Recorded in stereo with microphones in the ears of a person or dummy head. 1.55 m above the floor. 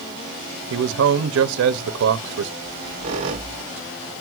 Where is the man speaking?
70° right (ahead or behind), 0.7 m.